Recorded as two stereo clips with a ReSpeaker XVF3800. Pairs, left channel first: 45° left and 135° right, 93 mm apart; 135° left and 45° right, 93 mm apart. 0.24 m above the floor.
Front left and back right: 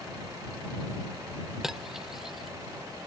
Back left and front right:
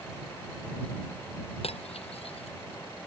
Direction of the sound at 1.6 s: 140° left.